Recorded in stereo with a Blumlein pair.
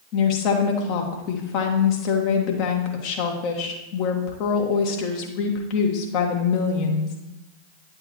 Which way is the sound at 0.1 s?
40° left.